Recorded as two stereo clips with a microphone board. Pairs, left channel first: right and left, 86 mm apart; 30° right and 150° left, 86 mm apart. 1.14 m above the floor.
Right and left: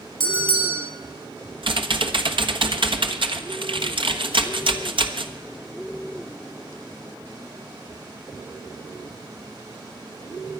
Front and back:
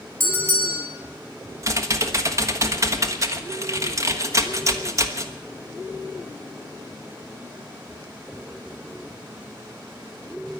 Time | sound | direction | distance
0.2 | a bell | 90° left | 4 m
1.6 | typing on a keyboard | 95° left | 1.2 m